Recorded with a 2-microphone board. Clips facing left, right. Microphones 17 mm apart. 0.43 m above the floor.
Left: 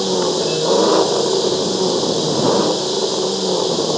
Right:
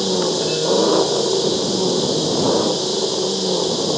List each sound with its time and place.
0.0 s an engine running: 25° left (ahead or behind)